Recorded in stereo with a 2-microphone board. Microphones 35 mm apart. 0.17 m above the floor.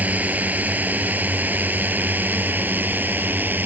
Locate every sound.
0.0 s a drone: 50° right (ahead or behind); by 3.7 s 65° right (ahead or behind)